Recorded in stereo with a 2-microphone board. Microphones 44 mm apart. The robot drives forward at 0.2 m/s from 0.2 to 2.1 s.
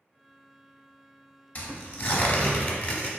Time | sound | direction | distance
1.6 | tearing paper | 35° left (ahead or behind) | 0.7 m